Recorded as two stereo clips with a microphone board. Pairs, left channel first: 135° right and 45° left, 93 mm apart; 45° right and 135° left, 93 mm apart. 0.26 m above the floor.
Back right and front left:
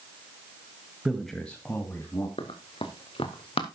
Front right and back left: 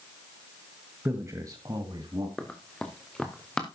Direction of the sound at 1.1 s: 120° left.